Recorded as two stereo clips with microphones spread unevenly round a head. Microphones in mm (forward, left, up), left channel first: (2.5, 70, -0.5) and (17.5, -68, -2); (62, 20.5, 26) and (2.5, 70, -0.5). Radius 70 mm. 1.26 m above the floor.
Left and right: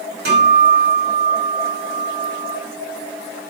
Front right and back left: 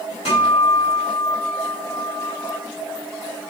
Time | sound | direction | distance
0.2 | a guitar | 105° right | 3.5 m